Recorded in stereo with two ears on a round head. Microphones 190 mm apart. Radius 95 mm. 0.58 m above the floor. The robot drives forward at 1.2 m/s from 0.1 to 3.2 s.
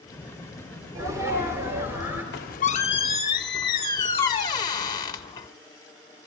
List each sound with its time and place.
0.9 s a sneeze: 20° right (ahead or behind), 1.9 m; by 2.2 s 10° right (ahead or behind), 3 m
2.3 s a squeak: 55° left (ahead or behind), 0.6 m; by 5.5 s 20° left (ahead or behind), 1.3 m